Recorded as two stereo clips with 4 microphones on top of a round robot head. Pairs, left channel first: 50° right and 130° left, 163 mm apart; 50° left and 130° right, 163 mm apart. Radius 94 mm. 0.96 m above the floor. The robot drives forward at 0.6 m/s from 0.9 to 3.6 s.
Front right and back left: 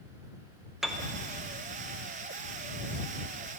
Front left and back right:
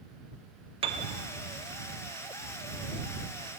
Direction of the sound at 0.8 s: 145° right.